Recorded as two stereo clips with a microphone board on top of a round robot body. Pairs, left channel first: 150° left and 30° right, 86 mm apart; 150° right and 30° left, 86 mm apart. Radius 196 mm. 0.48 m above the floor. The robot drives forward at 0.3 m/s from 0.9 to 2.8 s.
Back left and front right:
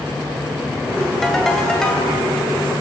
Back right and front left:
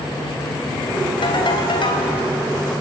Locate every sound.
1.2 s a ringtone: 125° right, 2.5 m; by 2.1 s 130° right, 2.5 m